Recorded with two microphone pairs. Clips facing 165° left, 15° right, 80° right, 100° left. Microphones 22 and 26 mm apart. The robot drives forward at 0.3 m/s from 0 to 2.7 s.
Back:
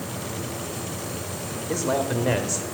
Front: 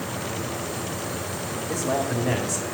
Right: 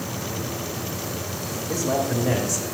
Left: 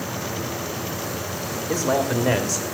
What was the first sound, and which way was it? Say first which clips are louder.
A man speaking: back 1 dB, left 2 dB; 110° left.